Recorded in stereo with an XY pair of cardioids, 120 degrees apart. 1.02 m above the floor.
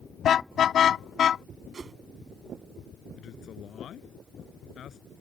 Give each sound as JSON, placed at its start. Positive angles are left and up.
{"t": 0.2, "sound": "a car horn", "azimuth_deg": 50}
{"t": 1.7, "sound": "a whoosh", "azimuth_deg": -35}
{"t": 3.2, "sound": "a man speaking", "azimuth_deg": 55}